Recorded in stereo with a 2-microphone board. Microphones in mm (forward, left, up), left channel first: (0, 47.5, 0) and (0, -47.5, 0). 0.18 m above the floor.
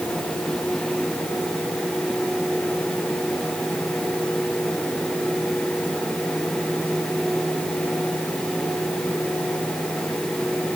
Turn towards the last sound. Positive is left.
No sound to turn to.